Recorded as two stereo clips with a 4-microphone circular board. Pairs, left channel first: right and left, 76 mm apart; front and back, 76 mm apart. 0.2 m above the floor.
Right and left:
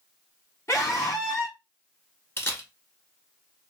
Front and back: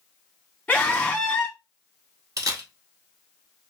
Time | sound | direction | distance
0.7 | a scream | 65° right | 1.7 m
2.4 | a camera shutter | 145° right | 0.8 m